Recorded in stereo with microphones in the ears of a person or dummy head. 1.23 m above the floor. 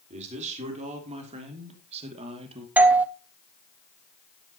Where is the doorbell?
5° right (ahead or behind), 0.6 m.